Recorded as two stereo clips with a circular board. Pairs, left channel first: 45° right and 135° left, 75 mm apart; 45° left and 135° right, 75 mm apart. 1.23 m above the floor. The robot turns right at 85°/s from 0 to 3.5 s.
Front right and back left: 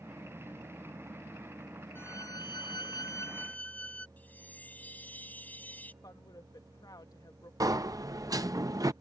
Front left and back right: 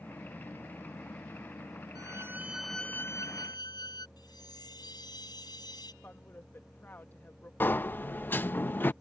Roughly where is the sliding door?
Left.